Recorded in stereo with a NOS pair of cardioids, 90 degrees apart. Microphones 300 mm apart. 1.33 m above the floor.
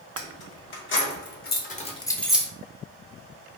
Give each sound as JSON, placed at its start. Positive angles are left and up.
{"t": 0.2, "sound": "keys jangling", "azimuth_deg": 50, "distance_m": 1.8}